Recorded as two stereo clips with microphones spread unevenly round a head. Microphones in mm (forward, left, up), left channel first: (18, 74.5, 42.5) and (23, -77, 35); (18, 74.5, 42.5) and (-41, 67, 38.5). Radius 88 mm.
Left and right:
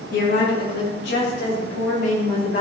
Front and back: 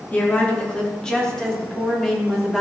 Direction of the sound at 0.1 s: 70° left.